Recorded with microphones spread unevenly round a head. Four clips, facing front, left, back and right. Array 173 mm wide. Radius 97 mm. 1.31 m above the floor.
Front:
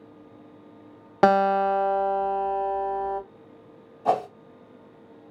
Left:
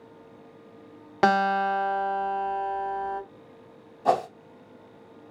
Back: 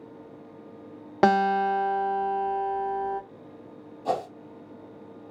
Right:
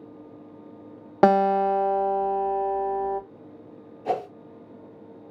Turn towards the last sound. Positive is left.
turn(degrees=60)